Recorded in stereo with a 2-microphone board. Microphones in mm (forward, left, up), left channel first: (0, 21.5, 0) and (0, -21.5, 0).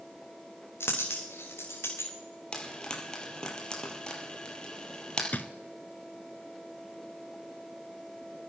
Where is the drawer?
40° left (ahead or behind), 0.8 m.